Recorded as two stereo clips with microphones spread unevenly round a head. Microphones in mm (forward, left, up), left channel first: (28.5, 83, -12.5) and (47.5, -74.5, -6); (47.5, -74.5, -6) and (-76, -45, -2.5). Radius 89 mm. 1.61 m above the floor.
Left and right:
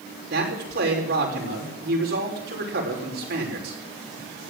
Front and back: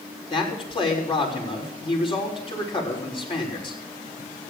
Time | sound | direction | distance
0.3 | a man speaking | 60° right | 6.5 m